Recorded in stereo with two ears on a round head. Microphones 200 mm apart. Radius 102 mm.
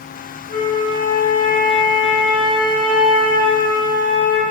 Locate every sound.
0.5 s a flute: 45° left (ahead or behind), 1.0 m